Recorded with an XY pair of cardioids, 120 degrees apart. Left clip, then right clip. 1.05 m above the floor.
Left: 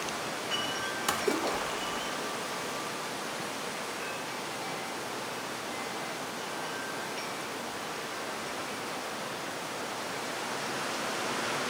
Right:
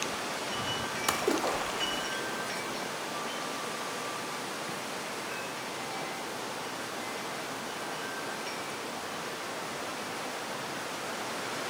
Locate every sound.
1.1 s a splash: 10° right, 0.7 m